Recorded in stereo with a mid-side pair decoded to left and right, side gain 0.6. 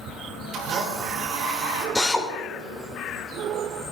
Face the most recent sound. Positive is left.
turn(degrees=10)